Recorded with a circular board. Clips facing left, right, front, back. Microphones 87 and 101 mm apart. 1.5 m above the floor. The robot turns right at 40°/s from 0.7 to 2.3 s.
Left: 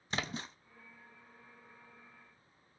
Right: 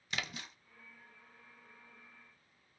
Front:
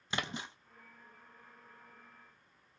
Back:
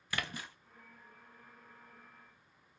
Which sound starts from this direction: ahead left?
A splash, at 0.1 s.